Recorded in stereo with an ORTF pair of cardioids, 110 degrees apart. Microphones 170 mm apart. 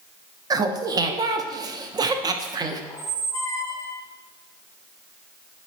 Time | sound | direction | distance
0.5 | laughter | 25° right | 0.5 m
2.9 | a squeak | 20° left | 0.6 m